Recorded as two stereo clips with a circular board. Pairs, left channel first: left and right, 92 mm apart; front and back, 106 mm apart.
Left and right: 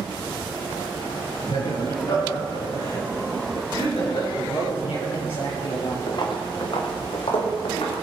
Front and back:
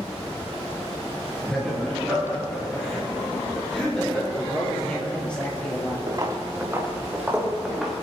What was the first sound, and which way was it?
Laughter, 85° left.